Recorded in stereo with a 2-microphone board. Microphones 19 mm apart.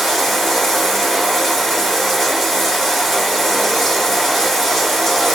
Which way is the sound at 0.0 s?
5° left (ahead or behind).